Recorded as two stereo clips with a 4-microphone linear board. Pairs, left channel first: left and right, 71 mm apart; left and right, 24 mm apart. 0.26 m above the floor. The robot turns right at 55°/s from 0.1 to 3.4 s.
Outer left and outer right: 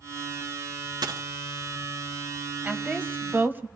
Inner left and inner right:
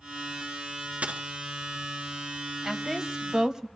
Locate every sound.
1.0 s a dropped coin: 80° right, 1.1 m; by 1.2 s 75° right (ahead or behind), 1.1 m
2.6 s a woman speaking: 20° right (ahead or behind), 1.0 m; by 3.7 s 30° right (ahead or behind), 1.0 m